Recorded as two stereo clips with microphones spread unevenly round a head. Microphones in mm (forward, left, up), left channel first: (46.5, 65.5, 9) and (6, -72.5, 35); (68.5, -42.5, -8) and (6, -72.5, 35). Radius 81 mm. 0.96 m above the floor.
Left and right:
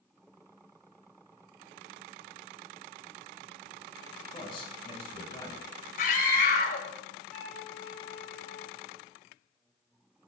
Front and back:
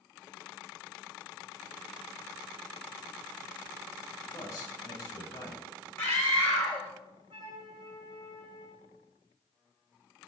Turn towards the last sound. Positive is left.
turn(degrees=155)